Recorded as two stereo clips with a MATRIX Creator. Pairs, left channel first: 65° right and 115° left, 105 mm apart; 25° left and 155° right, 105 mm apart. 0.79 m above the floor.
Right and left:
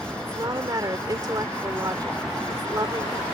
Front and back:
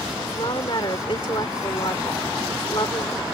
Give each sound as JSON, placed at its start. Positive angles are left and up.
{"t": 0.2, "sound": "a woman speaking", "azimuth_deg": 60}